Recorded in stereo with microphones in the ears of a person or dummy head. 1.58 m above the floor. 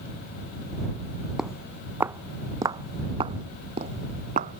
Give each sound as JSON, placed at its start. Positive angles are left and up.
{"t": 1.4, "sound": "footsteps", "side_deg": 0}